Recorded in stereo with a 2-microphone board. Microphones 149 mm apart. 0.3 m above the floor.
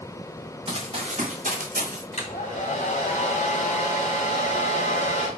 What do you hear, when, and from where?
0.7 s running footsteps: 35° right (ahead or behind), 2.5 m; by 2.0 s 65° right (ahead or behind), 3.5 m
2.1 s a hair dryer: 55° left (ahead or behind), 2.5 m